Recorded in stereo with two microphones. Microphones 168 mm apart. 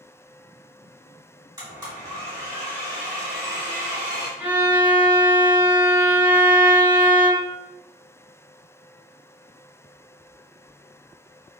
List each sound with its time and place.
1.6 s a blender: 25° right (ahead or behind), 1.3 m
4.4 s a violin: 20° right (ahead or behind), 2.0 m